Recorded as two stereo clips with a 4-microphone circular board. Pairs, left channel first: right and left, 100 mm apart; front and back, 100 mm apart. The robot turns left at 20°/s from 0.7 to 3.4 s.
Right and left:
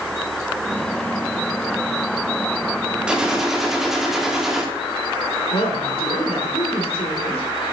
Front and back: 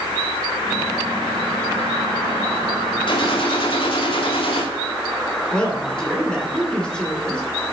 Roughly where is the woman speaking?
Right.